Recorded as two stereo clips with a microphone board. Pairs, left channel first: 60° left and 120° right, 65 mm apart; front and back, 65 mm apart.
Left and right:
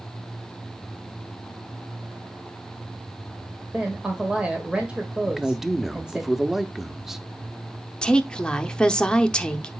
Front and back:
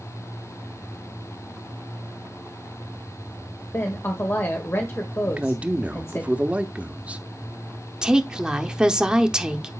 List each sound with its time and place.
3.7 s a woman speaking: 50° right, 1.4 m
5.2 s a man speaking: 165° left, 0.8 m
8.0 s a woman speaking: 120° left, 0.8 m